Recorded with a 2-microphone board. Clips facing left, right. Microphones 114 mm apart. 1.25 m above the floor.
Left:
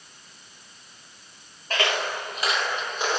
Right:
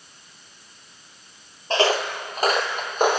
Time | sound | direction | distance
1.7 | footsteps | 30° right (ahead or behind) | 1.8 m